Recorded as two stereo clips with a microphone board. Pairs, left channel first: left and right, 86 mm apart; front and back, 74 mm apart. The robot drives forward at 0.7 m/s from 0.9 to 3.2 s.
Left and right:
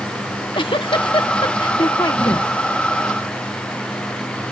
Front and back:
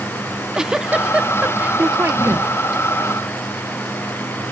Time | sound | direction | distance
0.3 | a giggle | 100° left | ?